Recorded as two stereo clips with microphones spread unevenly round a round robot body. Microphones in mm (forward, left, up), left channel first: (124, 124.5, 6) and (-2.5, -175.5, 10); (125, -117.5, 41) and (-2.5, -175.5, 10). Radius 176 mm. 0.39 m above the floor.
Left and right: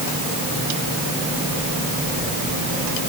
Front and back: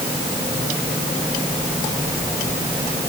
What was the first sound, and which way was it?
Only background noise.